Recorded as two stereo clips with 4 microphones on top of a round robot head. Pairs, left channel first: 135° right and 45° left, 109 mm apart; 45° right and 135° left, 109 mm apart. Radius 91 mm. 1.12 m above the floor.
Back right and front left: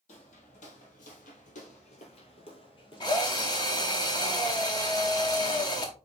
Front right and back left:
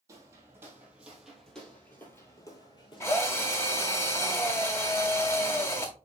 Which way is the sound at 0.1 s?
160° right.